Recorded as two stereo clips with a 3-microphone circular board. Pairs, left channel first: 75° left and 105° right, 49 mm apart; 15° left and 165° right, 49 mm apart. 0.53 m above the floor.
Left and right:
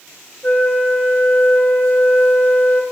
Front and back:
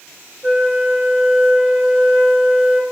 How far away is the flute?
About 1.2 m.